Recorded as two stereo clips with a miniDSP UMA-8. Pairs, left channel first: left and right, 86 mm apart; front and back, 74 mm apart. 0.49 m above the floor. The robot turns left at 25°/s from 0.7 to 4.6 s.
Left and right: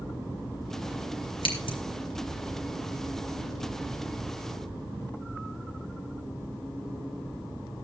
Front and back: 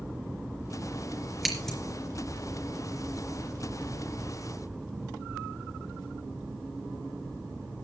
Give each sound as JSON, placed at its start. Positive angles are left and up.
{"t": 1.4, "sound": "scissors", "azimuth_deg": 90, "distance_m": 3.0}